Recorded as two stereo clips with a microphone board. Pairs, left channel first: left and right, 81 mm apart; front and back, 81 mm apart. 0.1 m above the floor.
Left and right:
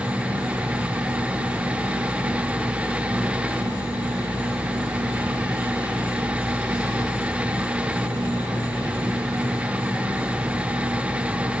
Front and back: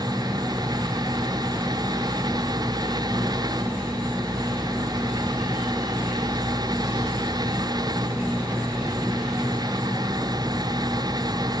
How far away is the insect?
About 7.5 m.